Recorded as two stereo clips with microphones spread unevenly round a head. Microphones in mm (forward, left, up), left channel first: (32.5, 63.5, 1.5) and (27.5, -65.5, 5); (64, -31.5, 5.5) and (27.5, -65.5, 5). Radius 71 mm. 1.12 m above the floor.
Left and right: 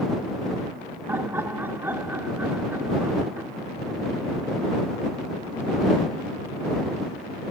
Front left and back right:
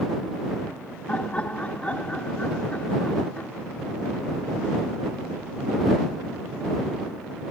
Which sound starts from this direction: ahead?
Laughter, at 1.1 s.